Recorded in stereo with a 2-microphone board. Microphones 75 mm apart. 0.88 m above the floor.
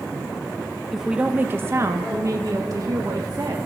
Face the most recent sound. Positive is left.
turn(degrees=-55)  # may be behind; listen again after turning